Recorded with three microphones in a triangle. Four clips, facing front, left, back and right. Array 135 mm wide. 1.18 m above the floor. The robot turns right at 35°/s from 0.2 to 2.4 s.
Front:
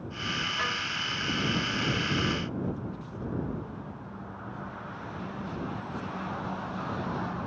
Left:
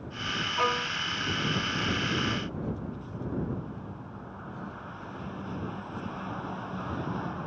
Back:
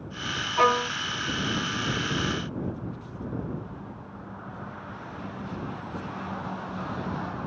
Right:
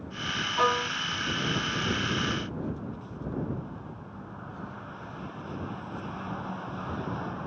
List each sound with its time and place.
0.6 s a violin: 170° right; by 0.9 s 160° right